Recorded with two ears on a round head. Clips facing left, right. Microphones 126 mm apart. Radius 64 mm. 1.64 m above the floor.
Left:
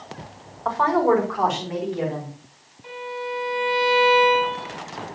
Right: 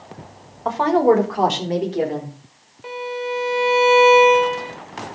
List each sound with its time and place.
0.7 s a woman speaking: 20° right (ahead or behind), 3 m; by 2.3 s 45° right (ahead or behind), 4.5 m
2.8 s a violin: 65° right (ahead or behind), 3.5 m